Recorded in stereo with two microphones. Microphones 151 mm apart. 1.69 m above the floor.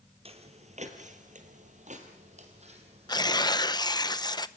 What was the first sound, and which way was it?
Footsteps, 40° right (ahead or behind).